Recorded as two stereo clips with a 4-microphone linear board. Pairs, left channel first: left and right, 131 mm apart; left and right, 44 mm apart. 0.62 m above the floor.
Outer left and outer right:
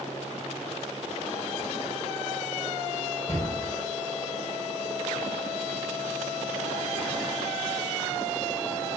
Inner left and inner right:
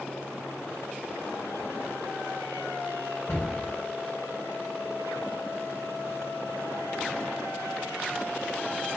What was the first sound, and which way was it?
A cupboard door, 80° left.